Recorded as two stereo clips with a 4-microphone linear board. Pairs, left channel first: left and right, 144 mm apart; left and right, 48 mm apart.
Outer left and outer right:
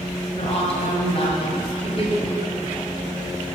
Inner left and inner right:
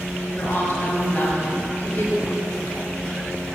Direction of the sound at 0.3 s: 45° left (ahead or behind).